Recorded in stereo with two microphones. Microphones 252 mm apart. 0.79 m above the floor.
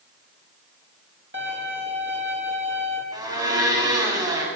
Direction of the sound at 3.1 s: 15° right (ahead or behind).